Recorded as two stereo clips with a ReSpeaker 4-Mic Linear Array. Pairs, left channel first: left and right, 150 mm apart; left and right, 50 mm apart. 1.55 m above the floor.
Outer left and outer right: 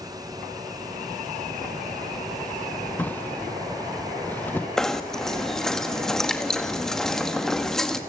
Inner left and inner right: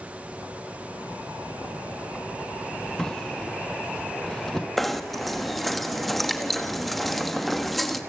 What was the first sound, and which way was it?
A drawer, 10° left (ahead or behind).